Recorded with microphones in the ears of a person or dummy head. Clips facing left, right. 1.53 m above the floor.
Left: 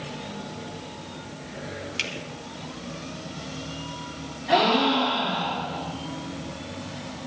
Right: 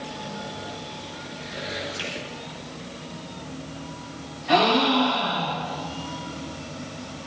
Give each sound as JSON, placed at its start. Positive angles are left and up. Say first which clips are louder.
{"t": 2.0, "sound": "a finger snap", "louder": "right 2 dB", "side_deg": 40, "distance_m": 4.5}
{"t": 4.5, "sound": "a gasp", "louder": "right 1 dB", "side_deg": 5, "distance_m": 7.0}